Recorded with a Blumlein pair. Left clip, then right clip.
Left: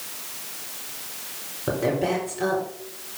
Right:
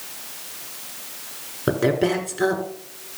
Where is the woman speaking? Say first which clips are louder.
Right 3 dB; 65° right, 4.5 m.